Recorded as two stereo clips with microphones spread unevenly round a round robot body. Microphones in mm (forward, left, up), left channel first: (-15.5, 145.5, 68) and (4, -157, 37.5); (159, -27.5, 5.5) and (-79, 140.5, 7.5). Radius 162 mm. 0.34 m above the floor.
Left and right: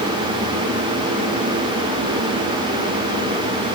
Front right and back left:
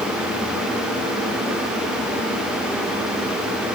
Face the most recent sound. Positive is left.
No sound to turn to.